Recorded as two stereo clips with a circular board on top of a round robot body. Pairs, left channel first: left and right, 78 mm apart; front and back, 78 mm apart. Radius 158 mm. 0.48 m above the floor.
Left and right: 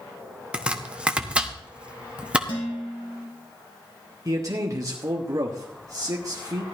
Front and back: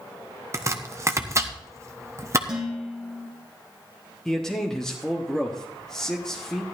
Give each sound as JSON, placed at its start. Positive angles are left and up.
{"t": 0.5, "sound": "chopping", "azimuth_deg": -160, "distance_m": 1.4}
{"t": 2.5, "sound": "dishes clattering", "azimuth_deg": 100, "distance_m": 3.0}
{"t": 4.2, "sound": "a man speaking", "azimuth_deg": -80, "distance_m": 1.6}